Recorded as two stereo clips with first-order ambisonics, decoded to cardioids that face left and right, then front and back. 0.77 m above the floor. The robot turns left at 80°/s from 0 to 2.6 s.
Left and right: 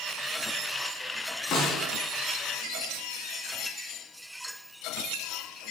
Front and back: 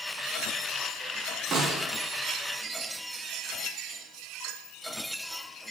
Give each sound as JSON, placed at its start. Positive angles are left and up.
{"t": 1.5, "sound": "a snare drum", "azimuth_deg": 130, "distance_m": 1.2}